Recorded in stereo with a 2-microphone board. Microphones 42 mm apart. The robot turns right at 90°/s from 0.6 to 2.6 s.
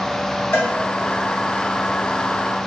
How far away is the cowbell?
About 0.9 m.